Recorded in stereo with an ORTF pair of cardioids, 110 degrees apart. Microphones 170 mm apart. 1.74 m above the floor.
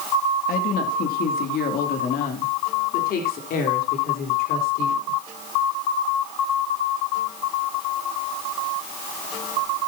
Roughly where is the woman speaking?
Ahead left.